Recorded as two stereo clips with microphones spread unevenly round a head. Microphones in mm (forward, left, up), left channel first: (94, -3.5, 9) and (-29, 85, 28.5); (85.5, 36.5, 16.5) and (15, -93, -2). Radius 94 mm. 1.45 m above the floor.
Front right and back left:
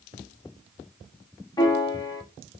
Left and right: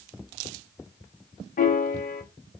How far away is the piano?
About 0.8 m.